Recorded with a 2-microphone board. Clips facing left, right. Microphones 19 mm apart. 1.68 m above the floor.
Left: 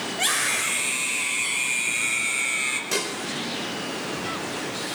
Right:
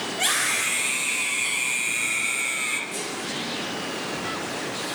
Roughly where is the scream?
Centre.